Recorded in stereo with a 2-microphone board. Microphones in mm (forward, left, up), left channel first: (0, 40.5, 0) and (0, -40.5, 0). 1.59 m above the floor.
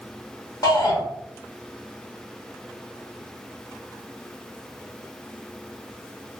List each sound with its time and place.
0.6 s a shout: 55° left (ahead or behind), 1.5 m